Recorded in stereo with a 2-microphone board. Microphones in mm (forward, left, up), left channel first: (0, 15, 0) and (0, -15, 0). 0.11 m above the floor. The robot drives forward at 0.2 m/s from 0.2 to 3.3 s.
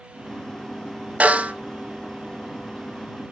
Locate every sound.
1.2 s a snare drum: 40° right (ahead or behind), 1.3 m